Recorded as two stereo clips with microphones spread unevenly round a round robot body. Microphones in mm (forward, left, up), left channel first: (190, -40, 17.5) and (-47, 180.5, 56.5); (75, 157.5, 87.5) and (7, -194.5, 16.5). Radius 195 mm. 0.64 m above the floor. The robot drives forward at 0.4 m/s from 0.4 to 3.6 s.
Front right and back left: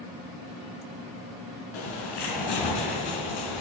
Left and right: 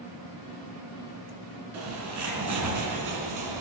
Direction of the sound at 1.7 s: 55° right.